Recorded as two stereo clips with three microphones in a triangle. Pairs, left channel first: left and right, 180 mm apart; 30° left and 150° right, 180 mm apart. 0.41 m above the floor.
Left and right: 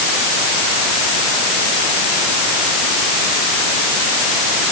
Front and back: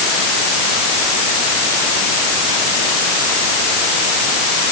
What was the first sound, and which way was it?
Only background noise.